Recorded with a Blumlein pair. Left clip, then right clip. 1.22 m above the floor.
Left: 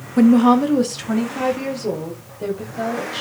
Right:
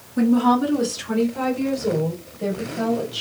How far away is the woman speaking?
About 1.1 m.